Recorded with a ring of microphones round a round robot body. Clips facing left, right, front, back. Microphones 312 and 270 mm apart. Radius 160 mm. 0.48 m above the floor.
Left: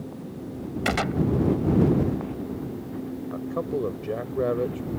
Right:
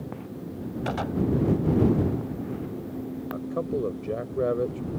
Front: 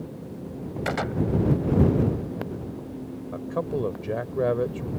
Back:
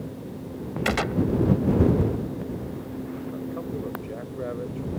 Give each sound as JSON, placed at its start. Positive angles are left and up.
{"t": 0.8, "sound": "a gunshot", "azimuth_deg": 135}
{"t": 3.3, "sound": "a man speaking", "azimuth_deg": 5}